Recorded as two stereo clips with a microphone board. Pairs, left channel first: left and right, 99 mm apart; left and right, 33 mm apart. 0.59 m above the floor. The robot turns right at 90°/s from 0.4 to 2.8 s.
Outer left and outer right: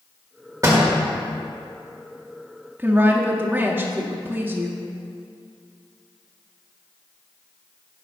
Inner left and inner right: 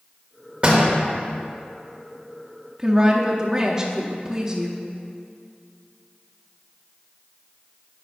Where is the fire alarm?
No fire alarm in this recording.